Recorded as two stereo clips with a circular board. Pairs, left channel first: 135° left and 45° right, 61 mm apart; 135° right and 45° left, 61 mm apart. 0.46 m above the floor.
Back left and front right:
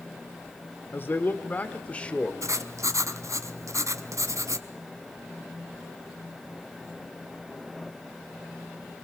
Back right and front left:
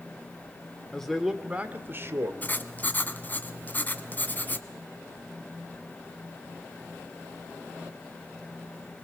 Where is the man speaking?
150° left, 1.1 m; by 2.3 s 65° left, 1.5 m.